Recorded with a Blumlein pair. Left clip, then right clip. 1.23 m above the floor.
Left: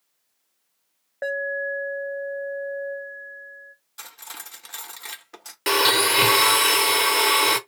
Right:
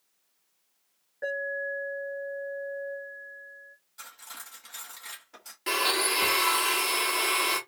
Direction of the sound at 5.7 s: 45° left.